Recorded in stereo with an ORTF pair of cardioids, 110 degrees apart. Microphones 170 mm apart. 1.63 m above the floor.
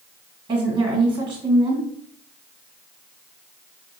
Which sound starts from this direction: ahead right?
A woman speaking, at 0.5 s.